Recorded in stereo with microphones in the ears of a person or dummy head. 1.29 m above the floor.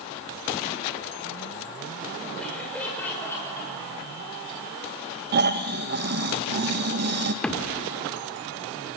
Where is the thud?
5° left (ahead or behind), 1.9 m.